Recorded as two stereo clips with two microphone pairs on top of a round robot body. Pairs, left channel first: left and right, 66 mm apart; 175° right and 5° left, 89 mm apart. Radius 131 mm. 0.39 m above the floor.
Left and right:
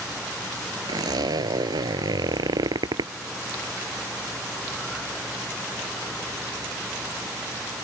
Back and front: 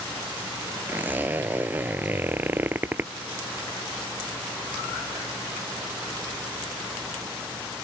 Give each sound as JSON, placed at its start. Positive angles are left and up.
{"t": 0.9, "sound": "a zipper", "azimuth_deg": -70}